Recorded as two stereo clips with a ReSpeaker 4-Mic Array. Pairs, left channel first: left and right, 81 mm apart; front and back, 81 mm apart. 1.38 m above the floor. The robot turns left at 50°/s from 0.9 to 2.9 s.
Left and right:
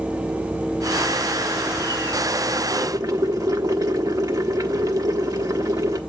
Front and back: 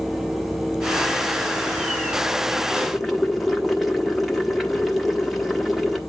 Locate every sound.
2.7 s boiling: 80° right, 1.2 m; by 6.0 s 90° right, 1.2 m